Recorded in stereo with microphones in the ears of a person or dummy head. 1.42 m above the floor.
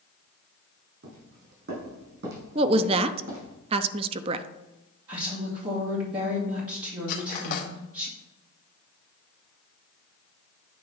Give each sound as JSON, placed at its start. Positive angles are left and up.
{"t": 1.0, "sound": "footsteps", "side_deg": -60, "distance_m": 3.5}
{"t": 2.5, "sound": "a woman speaking", "side_deg": -25, "distance_m": 0.5}
{"t": 5.1, "sound": "a woman speaking", "side_deg": -20, "distance_m": 2.5}
{"t": 7.1, "sound": "cutlery clinking", "side_deg": 55, "distance_m": 1.3}